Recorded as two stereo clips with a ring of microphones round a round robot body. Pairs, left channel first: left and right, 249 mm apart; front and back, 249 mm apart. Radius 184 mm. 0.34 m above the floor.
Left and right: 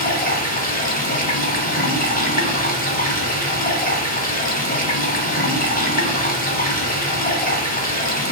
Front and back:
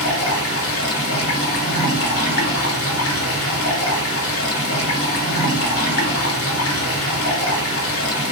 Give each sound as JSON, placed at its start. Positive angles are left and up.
{"t": 0.0, "sound": "running water", "azimuth_deg": 35, "distance_m": 1.1}